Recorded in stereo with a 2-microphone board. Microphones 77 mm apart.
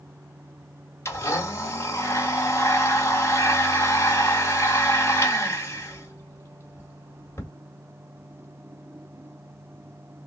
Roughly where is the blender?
Left.